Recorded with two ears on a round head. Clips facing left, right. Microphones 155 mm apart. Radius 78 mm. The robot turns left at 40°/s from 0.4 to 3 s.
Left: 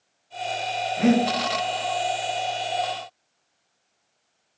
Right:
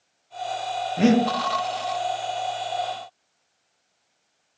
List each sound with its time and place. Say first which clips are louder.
1.0 s breathing: right 1 dB; 40° right (ahead or behind), 0.6 m; by 1.2 s 50° right (ahead or behind), 0.6 m